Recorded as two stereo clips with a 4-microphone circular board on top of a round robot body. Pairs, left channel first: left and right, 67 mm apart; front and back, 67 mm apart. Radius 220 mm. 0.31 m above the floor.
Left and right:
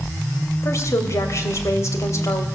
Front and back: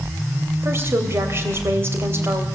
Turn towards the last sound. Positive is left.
turn(degrees=130)